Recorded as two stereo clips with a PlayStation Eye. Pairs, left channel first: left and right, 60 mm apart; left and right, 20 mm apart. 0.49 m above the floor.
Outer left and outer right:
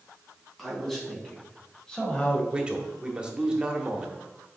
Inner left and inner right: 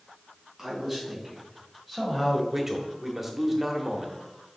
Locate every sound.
0.6 s a man speaking: centre (ahead or behind), 3.5 m; by 2.4 s 25° left (ahead or behind), 1.9 m
2.5 s a man speaking: 15° right (ahead or behind), 1.2 m